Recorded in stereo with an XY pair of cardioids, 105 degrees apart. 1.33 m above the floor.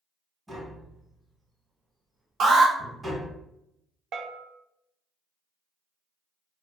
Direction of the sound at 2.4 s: 60° right.